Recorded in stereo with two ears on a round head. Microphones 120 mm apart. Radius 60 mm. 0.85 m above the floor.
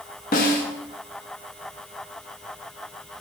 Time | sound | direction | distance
0.3 | a snare drum | 65° left (ahead or behind) | 1.1 m